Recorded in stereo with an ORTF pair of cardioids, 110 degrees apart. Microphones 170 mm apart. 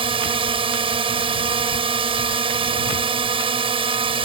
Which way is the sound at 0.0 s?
30° right.